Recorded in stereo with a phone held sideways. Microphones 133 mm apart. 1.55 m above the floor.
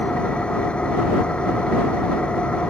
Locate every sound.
0.0 s an engine running: 5° left (ahead or behind)